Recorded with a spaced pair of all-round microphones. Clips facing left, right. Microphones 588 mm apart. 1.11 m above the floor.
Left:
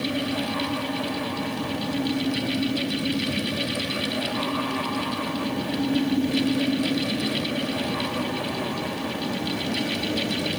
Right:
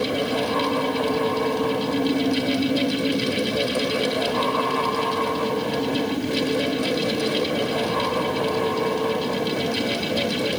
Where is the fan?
80° right.